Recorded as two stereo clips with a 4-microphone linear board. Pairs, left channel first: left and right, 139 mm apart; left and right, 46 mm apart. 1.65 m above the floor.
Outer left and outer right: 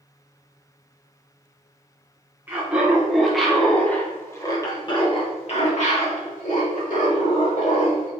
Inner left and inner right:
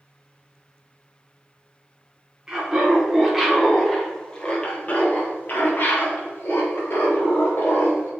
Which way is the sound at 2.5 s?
15° right (ahead or behind).